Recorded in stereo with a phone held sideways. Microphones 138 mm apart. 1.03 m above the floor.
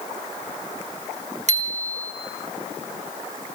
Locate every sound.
1.5 s a bicycle bell: 55° right (ahead or behind), 2.5 m